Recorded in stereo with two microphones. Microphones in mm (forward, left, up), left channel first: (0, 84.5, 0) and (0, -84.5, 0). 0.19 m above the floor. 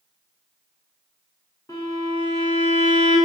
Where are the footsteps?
No footsteps in this recording.